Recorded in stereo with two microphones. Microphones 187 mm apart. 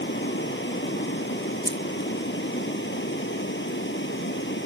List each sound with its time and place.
0.0 s running water: 80° left
1.6 s keys jangling: 25° right (ahead or behind)